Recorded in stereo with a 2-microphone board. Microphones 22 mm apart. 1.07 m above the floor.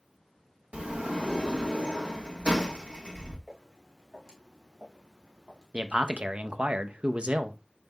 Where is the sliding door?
70° right (ahead or behind), 1.5 m.